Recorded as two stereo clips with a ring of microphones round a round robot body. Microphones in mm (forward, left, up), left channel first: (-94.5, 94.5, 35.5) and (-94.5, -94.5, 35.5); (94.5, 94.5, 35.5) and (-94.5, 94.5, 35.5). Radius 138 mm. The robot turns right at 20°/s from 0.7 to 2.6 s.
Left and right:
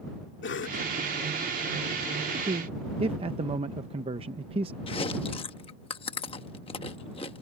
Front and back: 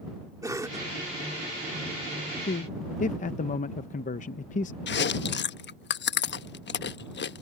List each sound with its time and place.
0.4 s a cough: 105° left; by 0.9 s 110° left
2.5 s a man speaking: 40° right; by 4.8 s 35° right
4.9 s chewing: 25° left